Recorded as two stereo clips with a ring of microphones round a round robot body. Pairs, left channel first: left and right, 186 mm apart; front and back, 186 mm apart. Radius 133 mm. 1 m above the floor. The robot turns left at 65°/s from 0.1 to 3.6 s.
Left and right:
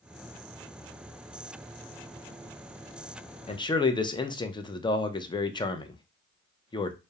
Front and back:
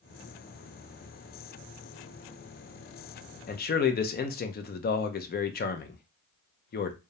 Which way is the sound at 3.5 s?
35° left.